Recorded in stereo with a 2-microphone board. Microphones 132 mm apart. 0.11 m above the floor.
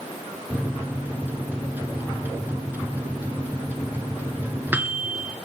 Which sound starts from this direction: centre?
A microwave, at 0.5 s.